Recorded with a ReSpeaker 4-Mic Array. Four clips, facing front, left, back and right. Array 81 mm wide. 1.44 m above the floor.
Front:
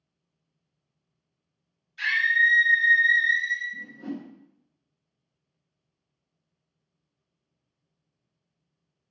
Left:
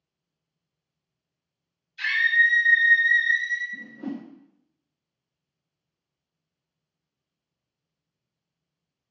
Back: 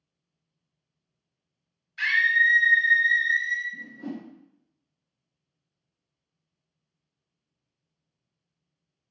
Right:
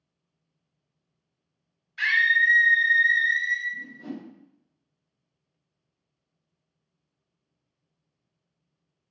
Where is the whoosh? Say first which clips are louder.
Left 3 dB, front 1 dB; 105° left, 0.5 m.